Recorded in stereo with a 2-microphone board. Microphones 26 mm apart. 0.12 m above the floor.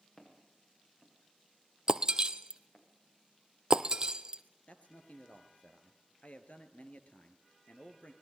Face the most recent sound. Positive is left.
turn(degrees=55)  # may be behind; listen again after turning